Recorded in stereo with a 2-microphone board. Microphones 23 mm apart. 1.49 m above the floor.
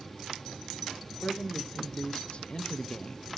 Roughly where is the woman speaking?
Left.